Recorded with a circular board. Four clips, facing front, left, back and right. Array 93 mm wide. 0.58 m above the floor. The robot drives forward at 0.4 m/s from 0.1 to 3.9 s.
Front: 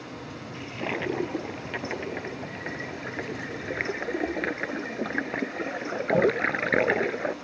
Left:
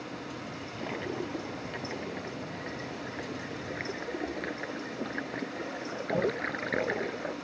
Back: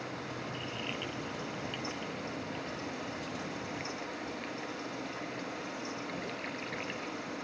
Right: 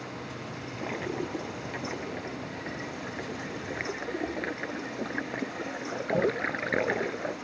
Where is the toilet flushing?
10° right.